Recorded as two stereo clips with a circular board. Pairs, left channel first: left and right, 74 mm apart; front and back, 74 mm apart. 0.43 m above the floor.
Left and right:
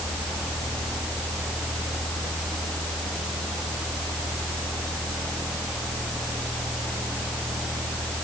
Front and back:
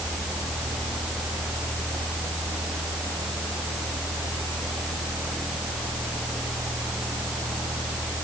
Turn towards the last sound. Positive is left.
No sound to turn to.